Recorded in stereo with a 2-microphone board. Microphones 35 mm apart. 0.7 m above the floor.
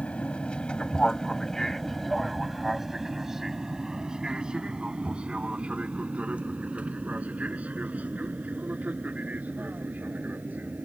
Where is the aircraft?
35° left (ahead or behind); by 10.9 s 50° right (ahead or behind).